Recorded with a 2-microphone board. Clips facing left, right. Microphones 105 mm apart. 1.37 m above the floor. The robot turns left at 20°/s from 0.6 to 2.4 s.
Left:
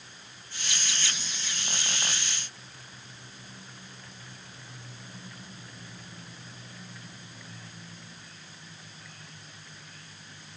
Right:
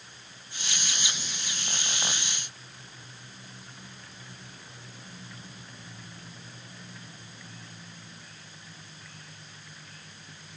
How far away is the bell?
No bell in this recording.